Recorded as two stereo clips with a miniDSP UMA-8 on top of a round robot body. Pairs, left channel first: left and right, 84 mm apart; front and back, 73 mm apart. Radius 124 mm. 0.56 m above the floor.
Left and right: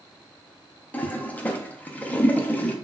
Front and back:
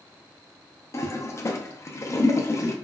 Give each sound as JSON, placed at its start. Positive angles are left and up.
{"t": 0.9, "sound": "a toilet flushing", "azimuth_deg": 25, "distance_m": 0.6}